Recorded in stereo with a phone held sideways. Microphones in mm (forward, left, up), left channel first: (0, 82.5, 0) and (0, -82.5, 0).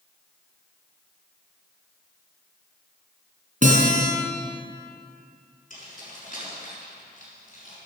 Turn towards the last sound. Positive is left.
turn(degrees=50)  # may be behind; listen again after turning